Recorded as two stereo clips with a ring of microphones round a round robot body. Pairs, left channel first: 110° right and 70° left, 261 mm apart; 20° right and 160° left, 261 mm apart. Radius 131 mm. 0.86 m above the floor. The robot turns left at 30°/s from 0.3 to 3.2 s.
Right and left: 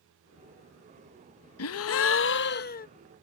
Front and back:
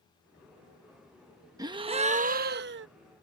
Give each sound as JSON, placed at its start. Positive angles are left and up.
{"t": 1.6, "sound": "a gasp", "azimuth_deg": -130}